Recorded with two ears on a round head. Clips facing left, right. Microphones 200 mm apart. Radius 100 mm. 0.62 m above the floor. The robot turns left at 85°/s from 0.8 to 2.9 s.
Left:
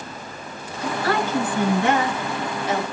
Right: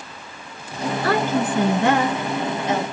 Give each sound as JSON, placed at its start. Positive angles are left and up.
{"t": 0.8, "sound": "a woman speaking", "azimuth_deg": -30, "distance_m": 8.5}